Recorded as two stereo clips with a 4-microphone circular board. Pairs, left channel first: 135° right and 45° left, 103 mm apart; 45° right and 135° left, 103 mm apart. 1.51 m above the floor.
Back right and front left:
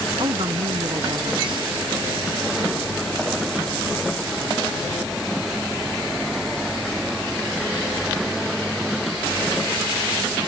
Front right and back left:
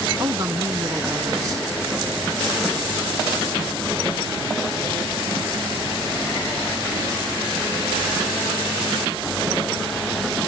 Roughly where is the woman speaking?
Left.